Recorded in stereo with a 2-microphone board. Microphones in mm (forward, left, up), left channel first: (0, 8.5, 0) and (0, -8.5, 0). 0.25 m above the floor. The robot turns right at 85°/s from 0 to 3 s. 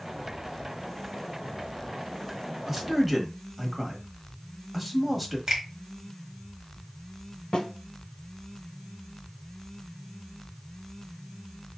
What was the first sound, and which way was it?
A man speaking, 10° right (ahead or behind).